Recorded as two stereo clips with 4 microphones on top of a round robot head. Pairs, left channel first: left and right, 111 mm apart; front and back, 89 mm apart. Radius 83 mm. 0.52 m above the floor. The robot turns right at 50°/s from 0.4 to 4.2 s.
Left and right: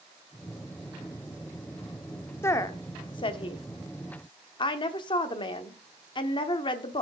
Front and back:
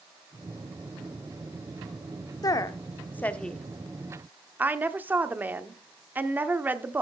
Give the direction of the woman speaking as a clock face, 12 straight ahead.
11 o'clock.